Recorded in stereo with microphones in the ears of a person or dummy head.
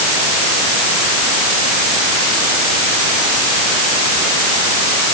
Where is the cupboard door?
No cupboard door in this recording.